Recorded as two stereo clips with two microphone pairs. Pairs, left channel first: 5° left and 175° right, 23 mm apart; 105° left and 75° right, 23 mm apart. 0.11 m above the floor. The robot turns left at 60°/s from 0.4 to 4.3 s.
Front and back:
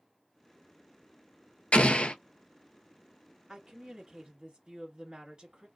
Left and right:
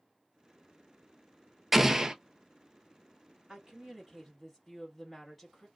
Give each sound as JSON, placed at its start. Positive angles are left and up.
{"t": 1.7, "sound": "an explosion", "azimuth_deg": 10, "distance_m": 0.5}
{"t": 3.5, "sound": "a woman speaking", "azimuth_deg": -110, "distance_m": 1.6}